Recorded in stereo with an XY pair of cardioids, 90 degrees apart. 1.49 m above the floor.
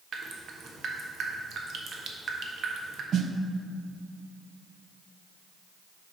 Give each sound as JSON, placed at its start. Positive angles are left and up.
{"t": 0.1, "sound": "dripping", "azimuth_deg": -60, "distance_m": 1.0}
{"t": 3.1, "sound": "a snare drum", "azimuth_deg": -60, "distance_m": 0.6}